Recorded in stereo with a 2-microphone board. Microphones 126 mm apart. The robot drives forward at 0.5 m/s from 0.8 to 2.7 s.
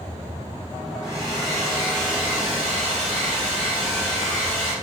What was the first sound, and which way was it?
A hair dryer, 20° left (ahead or behind).